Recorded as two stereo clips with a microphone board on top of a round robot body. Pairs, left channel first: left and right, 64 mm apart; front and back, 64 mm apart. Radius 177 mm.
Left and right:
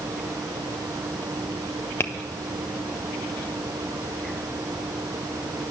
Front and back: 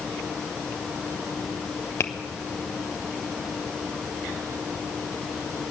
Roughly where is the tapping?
Ahead left.